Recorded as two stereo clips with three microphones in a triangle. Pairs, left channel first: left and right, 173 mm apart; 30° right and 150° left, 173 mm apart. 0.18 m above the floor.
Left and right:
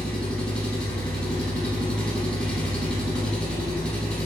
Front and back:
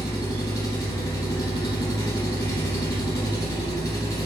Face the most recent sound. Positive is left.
turn(degrees=10)